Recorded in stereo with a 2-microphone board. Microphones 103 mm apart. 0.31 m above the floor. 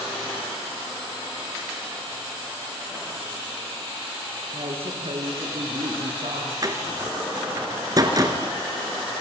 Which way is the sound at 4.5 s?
70° right (ahead or behind).